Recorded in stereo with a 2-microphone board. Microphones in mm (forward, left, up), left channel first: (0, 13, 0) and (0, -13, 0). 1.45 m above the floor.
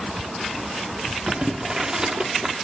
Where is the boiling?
25° right (ahead or behind), 1.2 m.